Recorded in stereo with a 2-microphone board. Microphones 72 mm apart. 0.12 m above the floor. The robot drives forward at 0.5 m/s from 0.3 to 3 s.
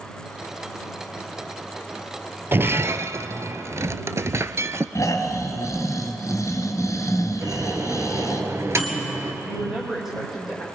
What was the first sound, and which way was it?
Breaking glass, 30° right (ahead or behind).